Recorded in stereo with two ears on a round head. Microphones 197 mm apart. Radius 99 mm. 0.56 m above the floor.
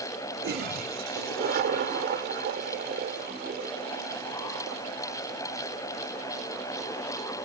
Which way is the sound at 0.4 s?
50° right (ahead or behind).